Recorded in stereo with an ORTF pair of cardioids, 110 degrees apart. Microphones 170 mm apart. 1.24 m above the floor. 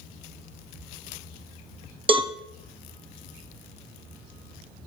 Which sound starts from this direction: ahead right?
A cowbell, at 2.1 s.